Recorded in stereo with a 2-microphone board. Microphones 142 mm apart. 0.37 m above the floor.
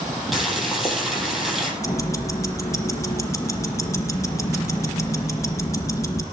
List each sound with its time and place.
0.3 s boiling: centre (ahead or behind), 6.5 m
1.8 s ticking: 20° left (ahead or behind), 2.5 m